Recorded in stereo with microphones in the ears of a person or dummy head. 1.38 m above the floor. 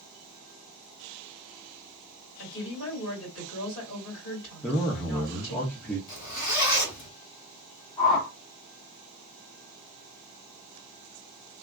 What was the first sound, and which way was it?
A woman speaking, 55° left (ahead or behind).